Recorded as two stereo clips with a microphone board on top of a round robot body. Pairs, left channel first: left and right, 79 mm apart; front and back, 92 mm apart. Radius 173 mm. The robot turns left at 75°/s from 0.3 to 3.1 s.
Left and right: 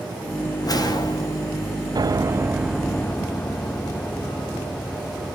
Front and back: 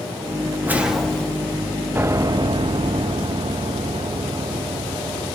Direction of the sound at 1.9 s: 115° right.